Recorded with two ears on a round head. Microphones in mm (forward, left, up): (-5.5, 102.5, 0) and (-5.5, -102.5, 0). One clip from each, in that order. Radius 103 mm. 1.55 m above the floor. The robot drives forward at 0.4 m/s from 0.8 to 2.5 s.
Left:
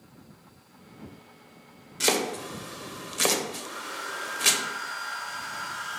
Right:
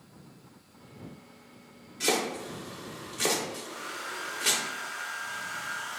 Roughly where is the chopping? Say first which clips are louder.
Left 3 dB; left.